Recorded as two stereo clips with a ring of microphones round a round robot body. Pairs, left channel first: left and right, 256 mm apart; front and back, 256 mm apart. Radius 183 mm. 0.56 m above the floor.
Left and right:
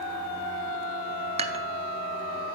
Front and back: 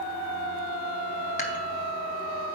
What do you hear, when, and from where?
1.4 s dishes clattering: 40° right, 0.6 m